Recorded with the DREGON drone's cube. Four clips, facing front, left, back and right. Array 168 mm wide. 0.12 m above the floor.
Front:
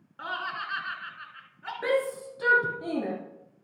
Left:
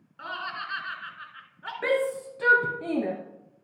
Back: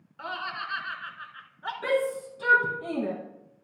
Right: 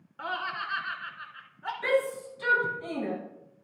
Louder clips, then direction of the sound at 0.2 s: Right 2 dB, front 1 dB; 35° right.